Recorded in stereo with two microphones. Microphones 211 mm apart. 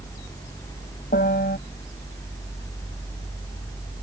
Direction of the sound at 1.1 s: 50° left (ahead or behind).